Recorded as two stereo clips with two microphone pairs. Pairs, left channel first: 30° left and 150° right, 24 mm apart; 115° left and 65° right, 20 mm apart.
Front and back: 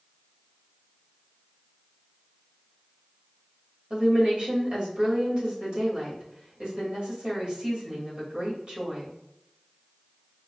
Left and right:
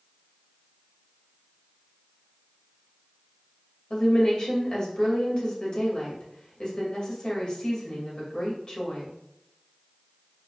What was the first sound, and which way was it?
A woman speaking, 165° left.